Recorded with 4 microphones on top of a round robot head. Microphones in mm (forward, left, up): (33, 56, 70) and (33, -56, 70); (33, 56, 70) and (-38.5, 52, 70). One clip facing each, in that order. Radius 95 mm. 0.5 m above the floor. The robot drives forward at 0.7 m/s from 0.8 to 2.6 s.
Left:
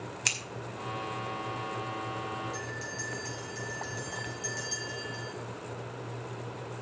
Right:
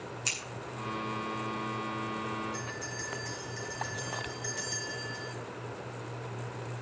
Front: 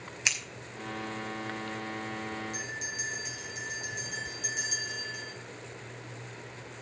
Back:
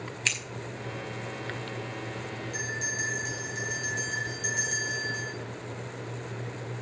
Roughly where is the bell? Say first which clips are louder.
Even, back 5 dB; behind left.